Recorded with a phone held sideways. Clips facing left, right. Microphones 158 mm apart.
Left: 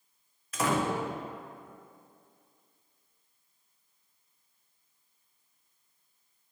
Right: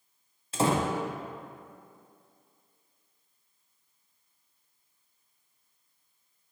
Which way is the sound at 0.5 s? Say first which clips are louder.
Right 2 dB; 30° right (ahead or behind).